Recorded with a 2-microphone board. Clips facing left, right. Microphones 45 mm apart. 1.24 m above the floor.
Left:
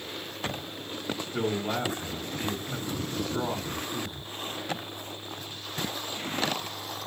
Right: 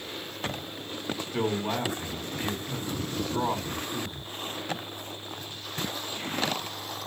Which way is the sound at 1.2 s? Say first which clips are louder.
Right 1 dB; 80° right.